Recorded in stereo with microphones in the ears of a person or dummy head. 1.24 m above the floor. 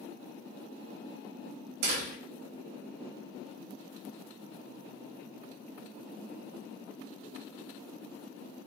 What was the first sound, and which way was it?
A door slam, 60° right (ahead or behind).